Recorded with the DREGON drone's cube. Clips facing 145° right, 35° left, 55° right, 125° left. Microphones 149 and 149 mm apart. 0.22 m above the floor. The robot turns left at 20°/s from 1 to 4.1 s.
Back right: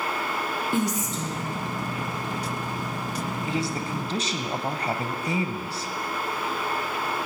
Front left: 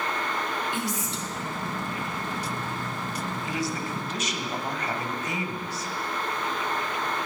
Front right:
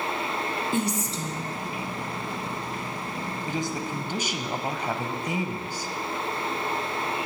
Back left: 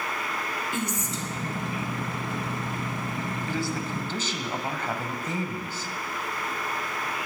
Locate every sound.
0.7 s a woman speaking: 105° right, 2.5 m; by 1.6 s 120° right, 2.5 m
3.5 s a man speaking: 110° right, 1.1 m; by 5.9 s 120° right, 1.1 m